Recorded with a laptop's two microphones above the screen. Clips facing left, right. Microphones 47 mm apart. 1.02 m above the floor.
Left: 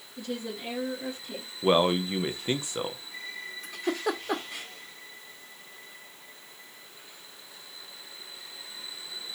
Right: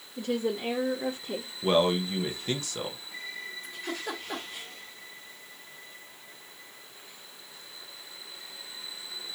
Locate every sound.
0.2 s a woman speaking: 40° right (ahead or behind), 1.3 m
1.6 s a man speaking: 20° left (ahead or behind), 0.7 m
3.6 s a giggle: 75° left (ahead or behind), 1.4 m